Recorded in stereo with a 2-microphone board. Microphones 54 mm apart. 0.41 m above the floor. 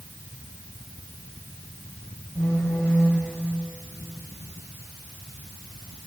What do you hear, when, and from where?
2.4 s a phone buzzing: 65° left (ahead or behind), 10 m